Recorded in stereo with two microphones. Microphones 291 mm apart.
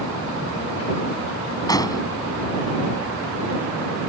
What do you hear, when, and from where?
1.7 s an explosion: 10° left (ahead or behind)